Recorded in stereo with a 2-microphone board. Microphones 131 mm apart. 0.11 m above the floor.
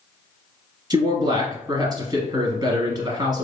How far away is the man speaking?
About 1.7 m.